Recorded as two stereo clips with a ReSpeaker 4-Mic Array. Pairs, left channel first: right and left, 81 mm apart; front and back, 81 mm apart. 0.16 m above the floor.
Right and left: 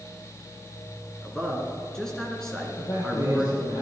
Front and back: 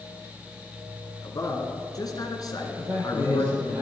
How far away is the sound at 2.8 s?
About 4.5 m.